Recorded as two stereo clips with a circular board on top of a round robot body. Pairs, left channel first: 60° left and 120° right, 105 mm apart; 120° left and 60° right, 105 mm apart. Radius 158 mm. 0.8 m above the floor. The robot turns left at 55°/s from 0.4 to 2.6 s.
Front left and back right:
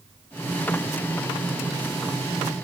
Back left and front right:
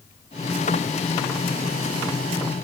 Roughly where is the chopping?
No chopping in this recording.